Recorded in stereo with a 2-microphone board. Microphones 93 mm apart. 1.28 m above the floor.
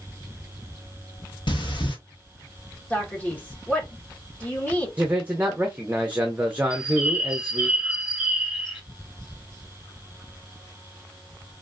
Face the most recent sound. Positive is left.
turn(degrees=0)  # may be behind; listen again after turning